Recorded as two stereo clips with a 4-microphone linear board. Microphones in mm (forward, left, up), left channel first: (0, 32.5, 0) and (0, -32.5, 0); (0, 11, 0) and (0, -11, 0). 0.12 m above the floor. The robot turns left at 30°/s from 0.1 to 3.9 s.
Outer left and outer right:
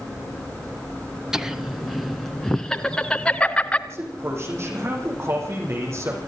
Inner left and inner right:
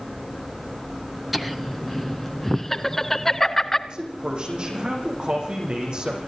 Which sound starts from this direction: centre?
Laughter, at 1.3 s.